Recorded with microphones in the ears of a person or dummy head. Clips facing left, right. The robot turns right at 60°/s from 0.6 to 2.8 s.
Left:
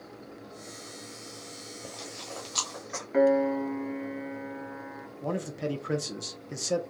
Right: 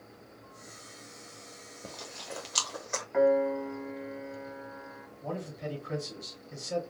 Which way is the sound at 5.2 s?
75° left (ahead or behind).